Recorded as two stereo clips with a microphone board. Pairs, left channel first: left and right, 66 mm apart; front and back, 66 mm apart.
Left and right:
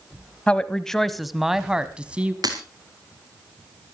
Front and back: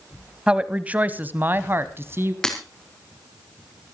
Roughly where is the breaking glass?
Right.